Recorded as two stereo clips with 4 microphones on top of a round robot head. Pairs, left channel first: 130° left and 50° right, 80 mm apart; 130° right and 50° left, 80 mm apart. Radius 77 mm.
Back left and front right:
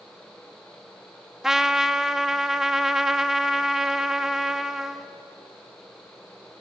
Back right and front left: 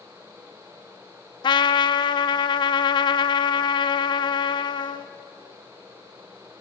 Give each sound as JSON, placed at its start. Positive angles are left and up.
{"t": 1.4, "sound": "a trumpet", "azimuth_deg": -135, "distance_m": 0.8}